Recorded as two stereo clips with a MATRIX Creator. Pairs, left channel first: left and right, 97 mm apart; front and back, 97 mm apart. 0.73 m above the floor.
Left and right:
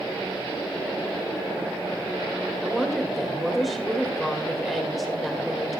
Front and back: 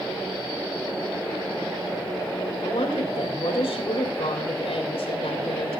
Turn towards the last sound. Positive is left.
turn(degrees=0)